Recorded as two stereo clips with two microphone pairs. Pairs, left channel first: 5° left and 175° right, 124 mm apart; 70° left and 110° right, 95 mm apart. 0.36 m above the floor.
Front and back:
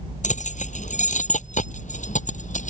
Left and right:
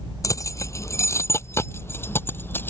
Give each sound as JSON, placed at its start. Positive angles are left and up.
{"t": 0.2, "sound": "keys jangling", "azimuth_deg": 15}